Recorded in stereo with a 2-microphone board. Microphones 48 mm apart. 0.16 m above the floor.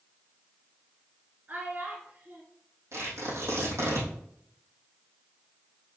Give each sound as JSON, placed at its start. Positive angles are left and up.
{"t": 1.5, "sound": "a child speaking", "side_deg": -35, "distance_m": 1.2}
{"t": 2.9, "sound": "tearing paper", "side_deg": -75, "distance_m": 3.5}